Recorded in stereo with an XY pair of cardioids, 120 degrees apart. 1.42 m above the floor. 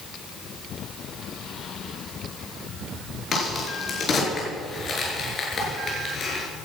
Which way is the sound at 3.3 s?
40° left.